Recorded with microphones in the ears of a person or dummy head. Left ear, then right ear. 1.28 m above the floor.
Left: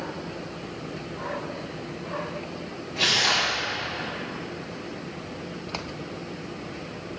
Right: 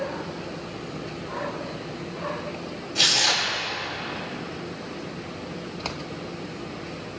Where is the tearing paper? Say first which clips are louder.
Right 1 dB; 90° right, 5.5 m.